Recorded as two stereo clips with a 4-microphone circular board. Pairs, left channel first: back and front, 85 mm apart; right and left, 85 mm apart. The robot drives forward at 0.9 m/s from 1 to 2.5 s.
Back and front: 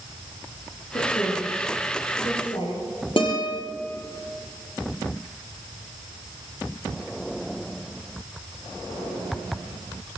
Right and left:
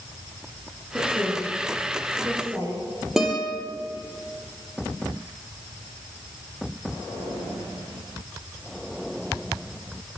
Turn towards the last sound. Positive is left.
turn(degrees=175)